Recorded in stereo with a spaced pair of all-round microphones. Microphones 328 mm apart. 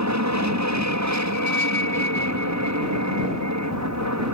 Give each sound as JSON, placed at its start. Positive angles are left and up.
{"t": 0.0, "sound": "an aircraft", "side_deg": -55}